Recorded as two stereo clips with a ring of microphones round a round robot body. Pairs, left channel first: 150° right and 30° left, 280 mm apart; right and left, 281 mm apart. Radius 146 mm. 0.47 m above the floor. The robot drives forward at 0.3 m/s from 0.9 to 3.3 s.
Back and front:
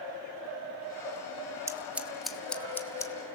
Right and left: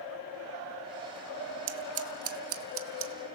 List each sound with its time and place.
1.7 s scissors: 110° left, 0.9 m; by 3.1 s 130° left, 1.1 m